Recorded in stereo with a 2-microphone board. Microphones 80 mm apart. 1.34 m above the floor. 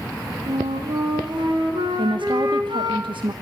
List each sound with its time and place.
0.5 s a flute: 80° right, 3.5 m
2.0 s a woman speaking: 80° right, 1.1 m